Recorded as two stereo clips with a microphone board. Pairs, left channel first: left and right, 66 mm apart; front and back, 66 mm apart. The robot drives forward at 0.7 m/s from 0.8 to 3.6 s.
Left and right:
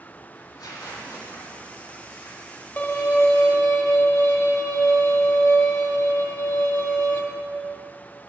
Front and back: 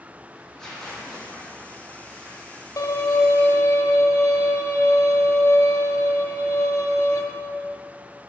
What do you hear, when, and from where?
0.3 s tearing paper: 80° left, 2.5 m; by 2.7 s 110° left, 2.5 m
2.8 s a violin: 35° left, 1.5 m; by 7.2 s 55° left, 1.1 m